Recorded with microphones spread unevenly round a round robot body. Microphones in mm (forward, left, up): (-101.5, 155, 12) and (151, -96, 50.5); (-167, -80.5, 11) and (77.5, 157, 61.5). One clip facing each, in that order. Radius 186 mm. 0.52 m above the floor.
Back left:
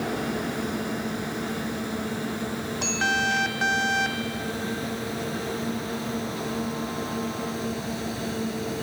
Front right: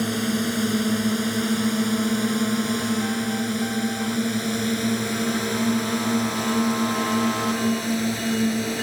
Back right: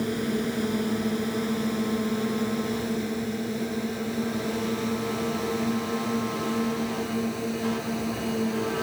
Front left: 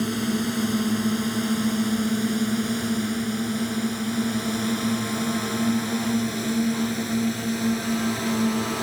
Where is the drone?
20° right; by 8.8 s 10° right.